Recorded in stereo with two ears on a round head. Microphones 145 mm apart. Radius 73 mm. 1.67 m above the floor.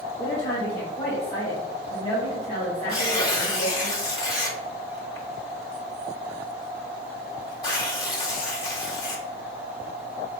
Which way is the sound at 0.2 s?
35° left (ahead or behind).